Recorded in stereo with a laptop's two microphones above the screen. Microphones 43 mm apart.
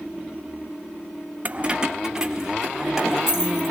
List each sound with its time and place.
1.4 s keys jangling: 35° right (ahead or behind), 0.5 m; by 3.7 s 10° right (ahead or behind), 4 m